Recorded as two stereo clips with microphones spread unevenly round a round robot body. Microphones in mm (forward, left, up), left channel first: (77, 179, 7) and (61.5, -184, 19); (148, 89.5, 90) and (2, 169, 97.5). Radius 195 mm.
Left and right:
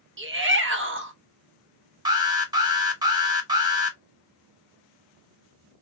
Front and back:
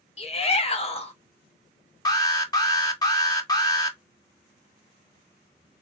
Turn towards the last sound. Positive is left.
turn(degrees=-25)